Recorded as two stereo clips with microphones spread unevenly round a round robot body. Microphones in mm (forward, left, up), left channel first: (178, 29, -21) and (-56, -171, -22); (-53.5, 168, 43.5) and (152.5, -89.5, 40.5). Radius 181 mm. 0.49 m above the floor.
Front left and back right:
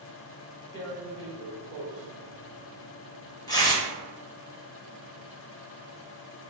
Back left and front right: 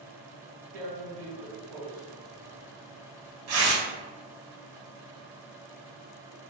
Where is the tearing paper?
40° right, 1.2 m.